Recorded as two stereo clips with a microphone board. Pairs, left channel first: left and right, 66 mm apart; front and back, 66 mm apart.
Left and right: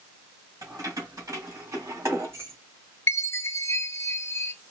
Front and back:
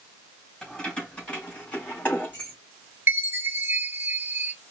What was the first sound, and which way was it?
Keys jangling, 80° right.